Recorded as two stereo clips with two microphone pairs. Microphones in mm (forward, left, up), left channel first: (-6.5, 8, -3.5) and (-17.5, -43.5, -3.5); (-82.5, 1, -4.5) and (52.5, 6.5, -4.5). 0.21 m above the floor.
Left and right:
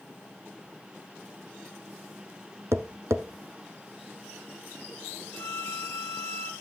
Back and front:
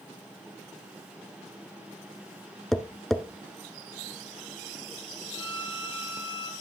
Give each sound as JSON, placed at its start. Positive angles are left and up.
{"t": 2.7, "sound": "tapping", "azimuth_deg": -90, "distance_m": 1.0}
{"t": 5.3, "sound": "a violin", "azimuth_deg": 130, "distance_m": 1.7}